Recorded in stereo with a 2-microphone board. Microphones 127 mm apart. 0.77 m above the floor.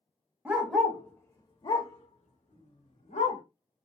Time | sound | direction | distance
0.5 | a dog barking | 15° right (ahead or behind) | 0.8 m